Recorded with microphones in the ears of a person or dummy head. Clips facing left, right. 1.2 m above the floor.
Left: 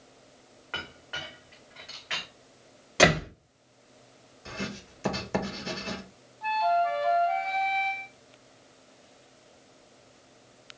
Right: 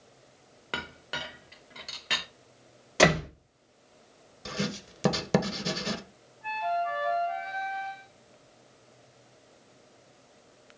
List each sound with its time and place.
0.7 s a clink: 50° right (ahead or behind), 0.8 m
3.0 s a door slam: centre (ahead or behind), 1.8 m
4.5 s writing: 50° right (ahead or behind), 0.8 m
6.4 s a flute: 60° left (ahead or behind), 0.8 m